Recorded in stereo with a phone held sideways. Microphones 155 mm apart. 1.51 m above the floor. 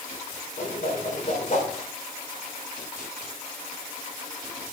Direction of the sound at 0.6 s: 55° left (ahead or behind).